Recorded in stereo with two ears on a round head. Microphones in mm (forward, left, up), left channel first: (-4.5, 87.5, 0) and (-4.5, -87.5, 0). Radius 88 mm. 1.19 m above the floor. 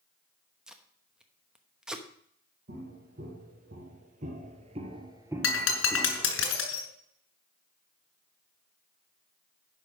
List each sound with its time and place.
0.7 s tape being pulled: 5° right (ahead or behind), 0.9 m
2.7 s footsteps: 45° right (ahead or behind), 3 m; by 6.4 s 15° left (ahead or behind), 1.6 m
5.4 s breaking glass: 75° left (ahead or behind), 3 m